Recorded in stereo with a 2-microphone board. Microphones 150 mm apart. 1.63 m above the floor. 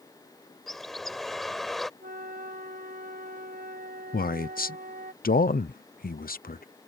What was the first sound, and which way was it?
A bird, centre (ahead or behind).